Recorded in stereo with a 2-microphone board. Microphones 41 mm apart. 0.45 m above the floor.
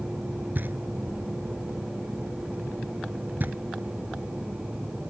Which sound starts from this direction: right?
Knocking, at 0.6 s.